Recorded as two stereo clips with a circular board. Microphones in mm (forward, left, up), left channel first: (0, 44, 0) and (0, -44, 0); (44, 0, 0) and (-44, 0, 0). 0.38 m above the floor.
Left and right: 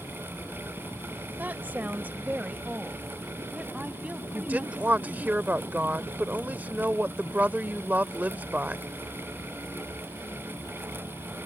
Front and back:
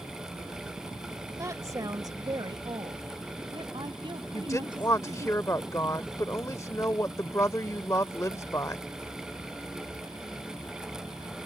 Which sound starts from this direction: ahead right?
A woman speaking, at 4.3 s.